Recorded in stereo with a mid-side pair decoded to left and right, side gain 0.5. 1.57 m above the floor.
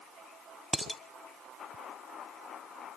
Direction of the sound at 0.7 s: 5° left.